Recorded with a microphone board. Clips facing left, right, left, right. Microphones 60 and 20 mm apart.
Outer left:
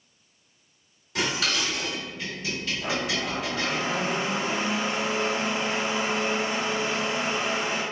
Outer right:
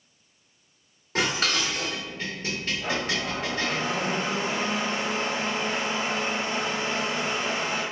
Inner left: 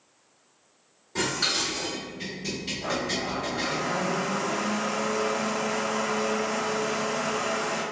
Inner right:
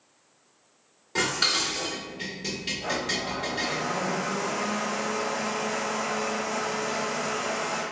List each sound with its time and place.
1.1 s dishes clattering: 40° right (ahead or behind), 1.7 m
2.8 s a blender: 5° left (ahead or behind), 1.5 m